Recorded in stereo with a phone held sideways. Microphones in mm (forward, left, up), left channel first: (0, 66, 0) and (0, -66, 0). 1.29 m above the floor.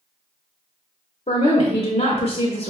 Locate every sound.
1.3 s a woman speaking: 60° left (ahead or behind), 0.7 m